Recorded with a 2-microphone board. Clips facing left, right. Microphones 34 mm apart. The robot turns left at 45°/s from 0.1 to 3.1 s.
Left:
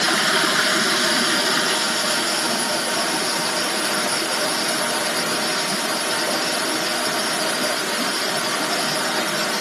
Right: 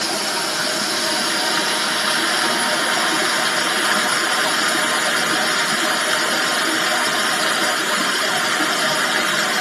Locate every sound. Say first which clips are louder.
0.0 s running water: left 4 dB; 65° left, 1.5 m; by 9.6 s 70° right, 1.5 m